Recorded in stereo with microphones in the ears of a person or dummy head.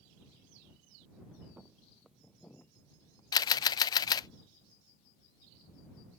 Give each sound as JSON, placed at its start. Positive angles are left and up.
{"t": 1.6, "sound": "footsteps", "side_deg": -10}
{"t": 3.3, "sound": "a camera shutter", "side_deg": 25}